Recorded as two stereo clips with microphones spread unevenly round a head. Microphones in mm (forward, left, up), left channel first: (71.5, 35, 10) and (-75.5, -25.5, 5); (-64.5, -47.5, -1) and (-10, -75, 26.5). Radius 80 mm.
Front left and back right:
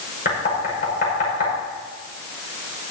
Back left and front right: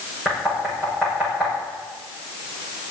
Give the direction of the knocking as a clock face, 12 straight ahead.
10 o'clock.